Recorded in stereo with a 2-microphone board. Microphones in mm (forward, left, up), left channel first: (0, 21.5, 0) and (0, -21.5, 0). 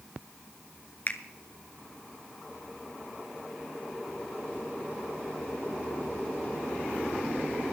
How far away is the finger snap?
About 1.1 m.